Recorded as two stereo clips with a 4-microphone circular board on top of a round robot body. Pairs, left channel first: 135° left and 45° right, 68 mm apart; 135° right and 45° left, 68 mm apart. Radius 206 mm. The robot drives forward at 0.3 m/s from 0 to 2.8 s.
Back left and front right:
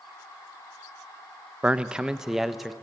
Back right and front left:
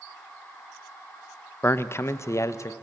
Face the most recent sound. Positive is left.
turn(degrees=-135)